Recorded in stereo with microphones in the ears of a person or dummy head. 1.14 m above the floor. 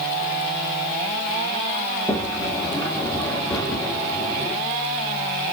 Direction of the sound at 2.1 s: 15° left (ahead or behind).